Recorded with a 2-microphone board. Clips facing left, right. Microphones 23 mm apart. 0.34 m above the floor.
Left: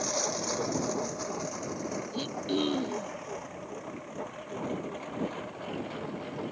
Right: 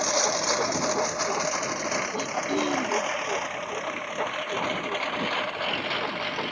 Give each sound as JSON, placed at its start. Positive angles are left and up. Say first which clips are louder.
{"t": 0.0, "sound": "a lawn mower", "louder": "right 7 dB", "side_deg": -45}
{"t": 2.1, "sound": "throat clearing", "louder": "right 4 dB", "side_deg": 10}